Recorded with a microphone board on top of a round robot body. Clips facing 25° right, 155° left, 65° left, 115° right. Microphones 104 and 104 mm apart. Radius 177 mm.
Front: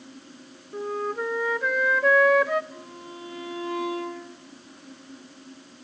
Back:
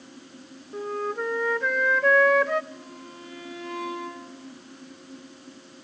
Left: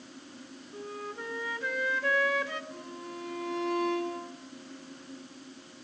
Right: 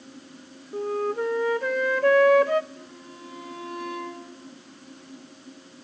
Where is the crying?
I don't hear crying.